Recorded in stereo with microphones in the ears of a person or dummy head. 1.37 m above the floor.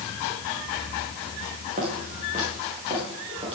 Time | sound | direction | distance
1.8 | footsteps | 40° right (ahead or behind) | 5 m